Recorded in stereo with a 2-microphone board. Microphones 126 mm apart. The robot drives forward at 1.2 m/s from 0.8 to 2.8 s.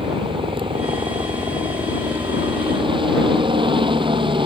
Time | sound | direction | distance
0.0 | a helicopter | 40° right (ahead or behind) | ?